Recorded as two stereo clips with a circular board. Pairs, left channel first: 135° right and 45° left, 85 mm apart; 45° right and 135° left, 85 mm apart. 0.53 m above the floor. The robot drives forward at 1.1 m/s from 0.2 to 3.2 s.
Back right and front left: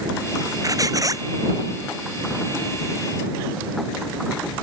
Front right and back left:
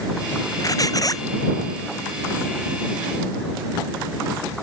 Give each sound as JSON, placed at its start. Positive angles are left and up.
{"t": 0.6, "sound": "a squeak", "azimuth_deg": 0}